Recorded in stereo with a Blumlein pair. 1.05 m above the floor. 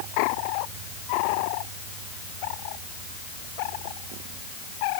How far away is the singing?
No singing in this recording.